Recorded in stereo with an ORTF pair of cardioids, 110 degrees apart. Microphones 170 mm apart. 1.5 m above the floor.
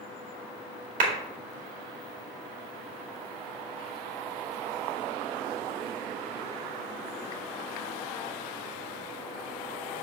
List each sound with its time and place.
1.0 s a clap: 55° right, 2 m